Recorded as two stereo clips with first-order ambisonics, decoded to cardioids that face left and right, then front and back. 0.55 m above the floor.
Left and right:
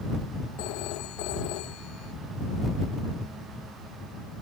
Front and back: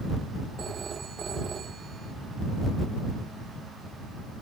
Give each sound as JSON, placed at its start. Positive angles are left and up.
{"t": 0.6, "sound": "a phone ringing", "azimuth_deg": 115}